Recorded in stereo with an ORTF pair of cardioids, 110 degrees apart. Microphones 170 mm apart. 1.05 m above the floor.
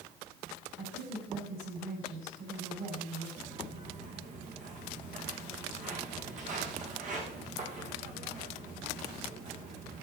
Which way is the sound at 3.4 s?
45° right.